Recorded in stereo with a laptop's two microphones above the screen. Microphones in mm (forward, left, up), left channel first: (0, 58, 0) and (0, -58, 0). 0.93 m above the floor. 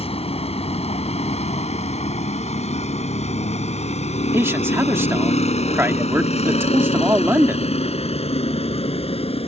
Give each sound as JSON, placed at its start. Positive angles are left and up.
{"t": 0.0, "sound": "a vehicle", "side_deg": 65}
{"t": 4.3, "sound": "a man speaking", "side_deg": -20}